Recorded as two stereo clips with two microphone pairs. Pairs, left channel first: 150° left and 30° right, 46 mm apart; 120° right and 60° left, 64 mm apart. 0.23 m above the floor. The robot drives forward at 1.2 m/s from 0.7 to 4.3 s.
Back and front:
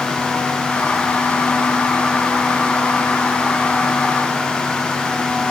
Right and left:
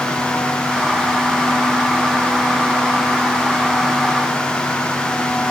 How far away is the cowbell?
No cowbell in this recording.